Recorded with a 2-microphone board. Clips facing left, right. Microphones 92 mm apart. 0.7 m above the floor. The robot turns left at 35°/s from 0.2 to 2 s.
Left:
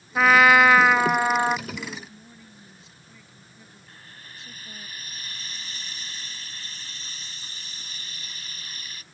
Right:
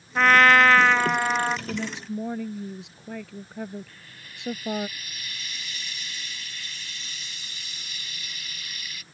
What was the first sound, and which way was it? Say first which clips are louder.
A trumpet: left 1 dB; 5° left (ahead or behind).